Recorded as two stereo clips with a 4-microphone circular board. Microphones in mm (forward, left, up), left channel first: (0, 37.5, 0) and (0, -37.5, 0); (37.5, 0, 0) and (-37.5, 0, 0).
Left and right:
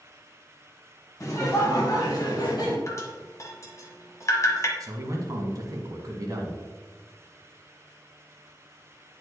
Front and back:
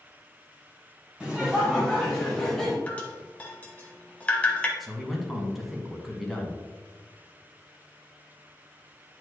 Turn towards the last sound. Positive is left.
turn(degrees=-90)